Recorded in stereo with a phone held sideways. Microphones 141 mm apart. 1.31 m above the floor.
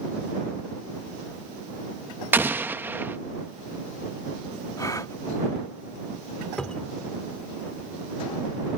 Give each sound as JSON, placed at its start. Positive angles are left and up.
{"t": 2.3, "sound": "an explosion", "side_deg": -15}
{"t": 4.8, "sound": "a gasp", "side_deg": 25}
{"t": 6.6, "sound": "a cupboard door", "side_deg": 5}